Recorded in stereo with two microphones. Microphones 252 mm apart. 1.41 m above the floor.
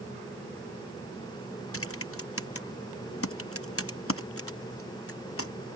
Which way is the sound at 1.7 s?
60° left (ahead or behind).